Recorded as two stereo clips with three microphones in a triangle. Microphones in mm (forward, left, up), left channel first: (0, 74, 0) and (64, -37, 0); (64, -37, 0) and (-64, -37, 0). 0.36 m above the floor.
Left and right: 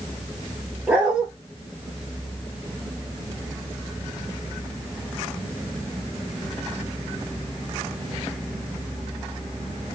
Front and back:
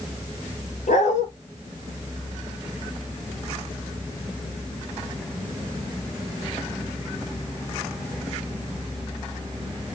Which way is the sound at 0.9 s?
20° left.